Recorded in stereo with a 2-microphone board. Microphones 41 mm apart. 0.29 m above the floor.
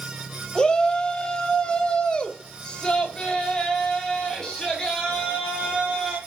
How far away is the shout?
About 1.5 m.